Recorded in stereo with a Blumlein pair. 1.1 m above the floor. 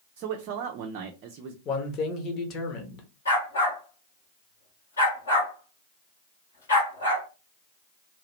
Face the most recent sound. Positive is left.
turn(degrees=70)